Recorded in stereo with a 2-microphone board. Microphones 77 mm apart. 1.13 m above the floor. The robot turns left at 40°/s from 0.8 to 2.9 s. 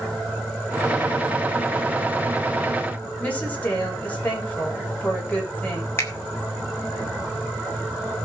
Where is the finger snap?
30° left (ahead or behind), 2.5 m.